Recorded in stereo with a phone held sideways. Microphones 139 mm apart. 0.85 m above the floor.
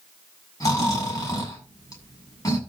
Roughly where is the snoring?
Left.